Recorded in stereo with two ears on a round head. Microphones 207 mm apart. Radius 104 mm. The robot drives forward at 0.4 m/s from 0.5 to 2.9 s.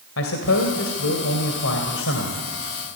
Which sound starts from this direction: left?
A man speaking, at 0.2 s.